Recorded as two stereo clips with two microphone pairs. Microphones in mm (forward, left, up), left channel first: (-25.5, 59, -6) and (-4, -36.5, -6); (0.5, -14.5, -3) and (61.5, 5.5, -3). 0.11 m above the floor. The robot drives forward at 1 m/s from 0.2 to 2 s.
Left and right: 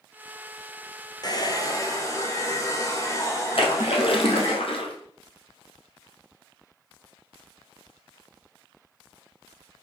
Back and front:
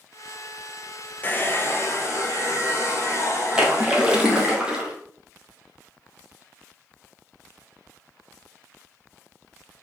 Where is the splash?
95° left, 1.6 m.